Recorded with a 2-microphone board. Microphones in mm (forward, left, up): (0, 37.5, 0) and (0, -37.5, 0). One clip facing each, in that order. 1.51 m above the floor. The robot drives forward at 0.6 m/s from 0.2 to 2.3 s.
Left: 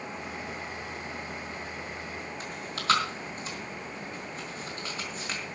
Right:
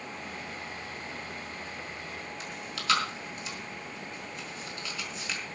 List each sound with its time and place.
2.4 s chewing: 35° left (ahead or behind), 4.5 m